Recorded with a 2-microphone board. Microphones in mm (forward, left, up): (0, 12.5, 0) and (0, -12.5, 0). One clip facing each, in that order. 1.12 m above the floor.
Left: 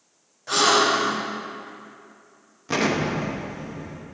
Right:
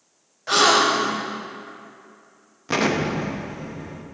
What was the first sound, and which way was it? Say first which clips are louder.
A gasp: right 2 dB; 30° right (ahead or behind).